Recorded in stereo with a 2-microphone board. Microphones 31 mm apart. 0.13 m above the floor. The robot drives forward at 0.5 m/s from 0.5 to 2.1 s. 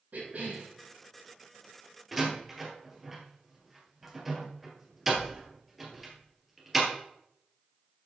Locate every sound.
0.1 s a cough: 60° right (ahead or behind), 3.5 m
2.1 s a door slam: 5° right (ahead or behind), 2 m